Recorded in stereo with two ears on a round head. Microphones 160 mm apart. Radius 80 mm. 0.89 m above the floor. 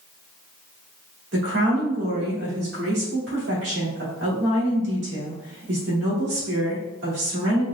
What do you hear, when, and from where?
1.3 s a woman speaking: 70° right (ahead or behind), 2.5 m